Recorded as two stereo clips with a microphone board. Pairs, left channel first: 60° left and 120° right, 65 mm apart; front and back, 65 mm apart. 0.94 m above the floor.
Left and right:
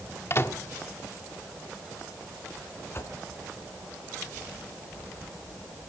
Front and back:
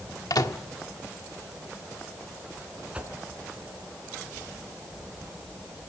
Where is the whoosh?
110° left, 3.5 m.